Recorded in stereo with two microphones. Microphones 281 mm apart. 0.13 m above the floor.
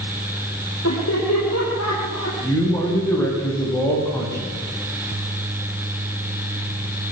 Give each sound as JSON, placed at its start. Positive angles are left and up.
{"t": 0.8, "sound": "laughter", "side_deg": 70, "distance_m": 6.5}
{"t": 2.4, "sound": "a man speaking", "side_deg": 10, "distance_m": 7.5}